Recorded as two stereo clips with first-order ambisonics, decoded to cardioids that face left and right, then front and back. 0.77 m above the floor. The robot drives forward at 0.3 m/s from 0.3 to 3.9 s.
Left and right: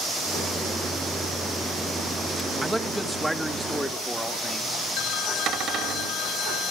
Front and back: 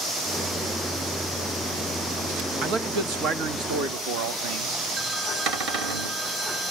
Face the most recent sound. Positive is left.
turn(degrees=-140)